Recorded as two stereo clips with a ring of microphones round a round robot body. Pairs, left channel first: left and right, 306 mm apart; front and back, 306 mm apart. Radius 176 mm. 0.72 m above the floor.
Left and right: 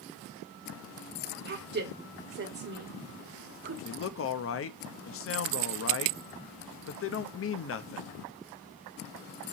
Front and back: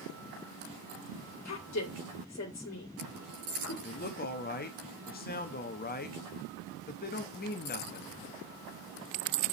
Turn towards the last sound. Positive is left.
turn(degrees=55)